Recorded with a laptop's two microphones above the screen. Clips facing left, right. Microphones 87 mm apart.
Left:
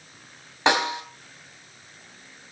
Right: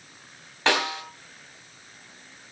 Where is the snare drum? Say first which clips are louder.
Left 2 dB; 20° left (ahead or behind), 3 m.